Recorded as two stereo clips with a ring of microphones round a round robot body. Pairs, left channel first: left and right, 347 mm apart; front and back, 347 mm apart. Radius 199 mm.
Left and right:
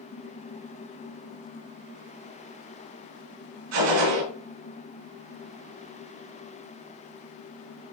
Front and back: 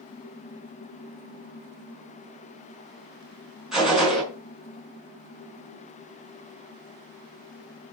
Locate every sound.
3.7 s a gunshot: 90° right, 5.5 m